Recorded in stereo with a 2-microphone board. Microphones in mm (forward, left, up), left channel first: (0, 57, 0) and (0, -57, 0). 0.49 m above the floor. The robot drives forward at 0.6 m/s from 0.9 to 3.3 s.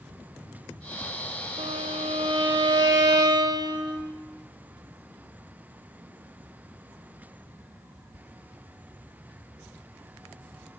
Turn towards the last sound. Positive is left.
turn(degrees=-35)  # may be behind; listen again after turning